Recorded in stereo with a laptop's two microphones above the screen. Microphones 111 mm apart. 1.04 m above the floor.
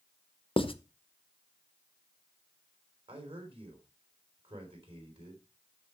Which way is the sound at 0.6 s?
50° left (ahead or behind).